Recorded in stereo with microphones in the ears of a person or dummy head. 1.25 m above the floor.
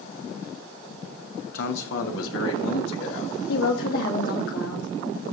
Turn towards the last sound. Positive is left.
turn(degrees=70)  # may be behind; listen again after turning